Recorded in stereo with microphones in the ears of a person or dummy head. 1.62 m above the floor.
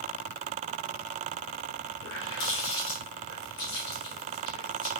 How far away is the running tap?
About 1.7 m.